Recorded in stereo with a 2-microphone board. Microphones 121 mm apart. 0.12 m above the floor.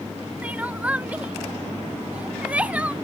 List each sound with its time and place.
0.4 s crying: 10° right (ahead or behind)